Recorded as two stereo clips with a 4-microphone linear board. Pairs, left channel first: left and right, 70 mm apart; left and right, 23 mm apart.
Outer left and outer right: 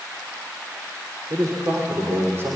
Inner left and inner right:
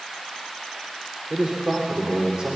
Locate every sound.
1.3 s a man speaking: 50° right (ahead or behind), 3.5 m; by 2.6 s 30° right (ahead or behind), 3.5 m